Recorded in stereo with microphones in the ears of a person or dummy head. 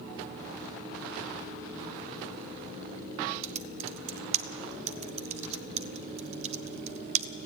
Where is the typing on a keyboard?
35° right (ahead or behind), 0.8 m.